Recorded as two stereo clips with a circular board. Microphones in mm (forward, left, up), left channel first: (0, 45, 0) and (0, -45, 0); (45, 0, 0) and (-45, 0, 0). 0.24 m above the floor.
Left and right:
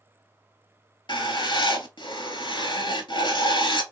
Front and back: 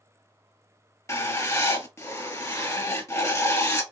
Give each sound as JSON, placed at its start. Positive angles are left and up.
{"t": 1.1, "sound": "writing", "azimuth_deg": 60, "distance_m": 0.7}